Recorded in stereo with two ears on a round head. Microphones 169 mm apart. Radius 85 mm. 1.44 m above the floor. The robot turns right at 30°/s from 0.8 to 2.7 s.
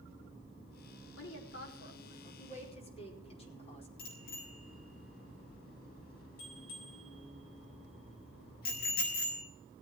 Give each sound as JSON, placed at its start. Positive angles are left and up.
{"t": 1.2, "sound": "a woman speaking", "azimuth_deg": 100, "distance_m": 5.0}
{"t": 4.0, "sound": "a bicycle bell", "side_deg": 55, "distance_m": 7.5}